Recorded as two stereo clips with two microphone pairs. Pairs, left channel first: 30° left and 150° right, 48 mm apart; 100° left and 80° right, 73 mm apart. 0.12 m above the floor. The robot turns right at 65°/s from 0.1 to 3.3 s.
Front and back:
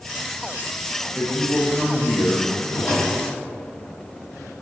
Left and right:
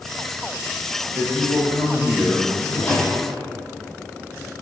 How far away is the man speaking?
About 2.5 m.